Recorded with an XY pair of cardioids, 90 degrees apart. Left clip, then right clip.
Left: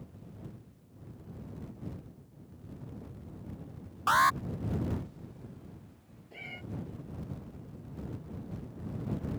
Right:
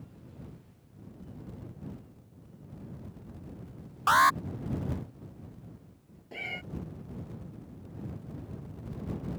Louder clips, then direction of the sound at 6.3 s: Right 7 dB; 55° right.